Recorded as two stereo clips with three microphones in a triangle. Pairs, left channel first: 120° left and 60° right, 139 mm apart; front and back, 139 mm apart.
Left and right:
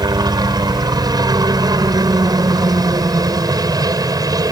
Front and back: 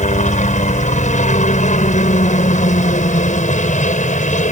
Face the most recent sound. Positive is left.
turn(degrees=0)